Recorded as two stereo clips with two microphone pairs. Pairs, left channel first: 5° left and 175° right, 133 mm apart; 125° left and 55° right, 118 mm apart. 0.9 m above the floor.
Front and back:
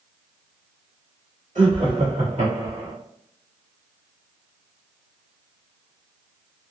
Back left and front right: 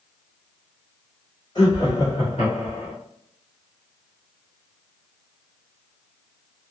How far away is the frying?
No frying in this recording.